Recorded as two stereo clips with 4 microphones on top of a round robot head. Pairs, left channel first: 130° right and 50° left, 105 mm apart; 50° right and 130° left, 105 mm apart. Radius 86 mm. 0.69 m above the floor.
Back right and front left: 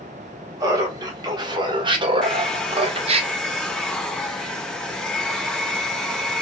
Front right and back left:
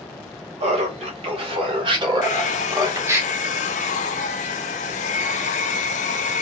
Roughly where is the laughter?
Left.